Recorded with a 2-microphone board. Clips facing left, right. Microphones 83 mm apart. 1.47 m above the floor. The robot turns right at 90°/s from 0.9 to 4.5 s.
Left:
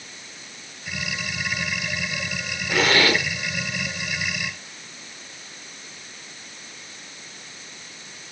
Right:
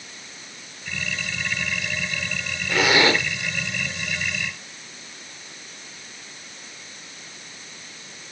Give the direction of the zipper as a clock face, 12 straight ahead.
6 o'clock.